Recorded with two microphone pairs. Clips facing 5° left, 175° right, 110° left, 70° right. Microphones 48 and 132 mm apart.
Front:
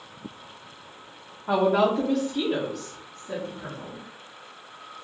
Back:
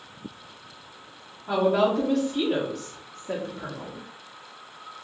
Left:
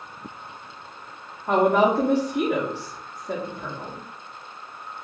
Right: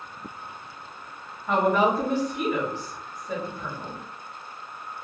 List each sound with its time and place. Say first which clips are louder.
1.5 s a woman speaking: front 1 dB, left 3 dB; 60° left, 0.8 m; by 4.0 s 160° left, 1.2 m